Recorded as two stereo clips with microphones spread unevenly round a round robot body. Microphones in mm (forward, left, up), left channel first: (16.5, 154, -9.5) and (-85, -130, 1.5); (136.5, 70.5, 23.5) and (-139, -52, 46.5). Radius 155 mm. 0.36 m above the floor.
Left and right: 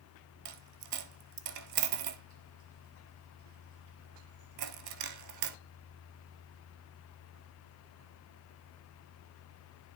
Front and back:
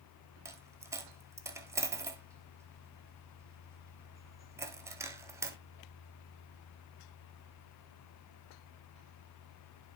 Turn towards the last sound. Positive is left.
turn(degrees=-75)